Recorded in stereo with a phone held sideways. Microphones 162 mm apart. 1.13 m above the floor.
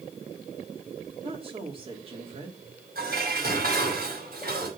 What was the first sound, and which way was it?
A woman speaking, 35° right (ahead or behind).